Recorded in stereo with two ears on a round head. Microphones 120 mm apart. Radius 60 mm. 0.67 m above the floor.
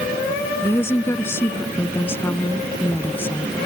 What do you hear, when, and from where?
0.6 s a woman speaking: 20° left (ahead or behind); by 3.5 s 15° left (ahead or behind)